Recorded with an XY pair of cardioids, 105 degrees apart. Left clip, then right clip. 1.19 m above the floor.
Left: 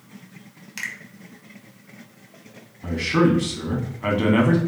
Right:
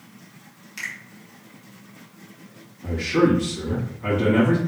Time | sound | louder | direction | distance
0.8 | a finger snap | left 1 dB | 40° left | 1.1 m
2.8 | a man speaking | even | 60° left | 1.6 m